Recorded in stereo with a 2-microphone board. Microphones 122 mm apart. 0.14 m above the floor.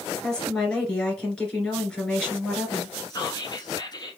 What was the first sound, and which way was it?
A woman speaking, 10° left (ahead or behind).